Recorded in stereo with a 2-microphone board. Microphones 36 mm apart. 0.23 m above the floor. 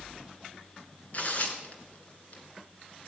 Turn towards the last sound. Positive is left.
turn(degrees=45)  # may be behind; listen again after turning